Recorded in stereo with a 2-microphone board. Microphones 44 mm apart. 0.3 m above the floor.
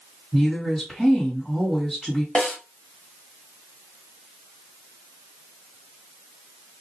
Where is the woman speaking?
Centre (ahead or behind), 1.9 m.